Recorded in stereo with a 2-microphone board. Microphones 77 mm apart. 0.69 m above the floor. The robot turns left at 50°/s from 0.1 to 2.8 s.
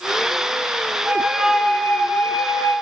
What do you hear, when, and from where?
1.0 s a flute: 155° right, 0.7 m; by 2.7 s 120° left, 0.7 m